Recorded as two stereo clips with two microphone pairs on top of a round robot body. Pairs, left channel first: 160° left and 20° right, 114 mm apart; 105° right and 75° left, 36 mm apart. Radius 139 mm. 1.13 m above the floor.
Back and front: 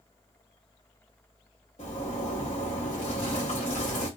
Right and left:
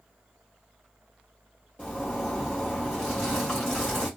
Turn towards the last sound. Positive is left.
turn(degrees=-165)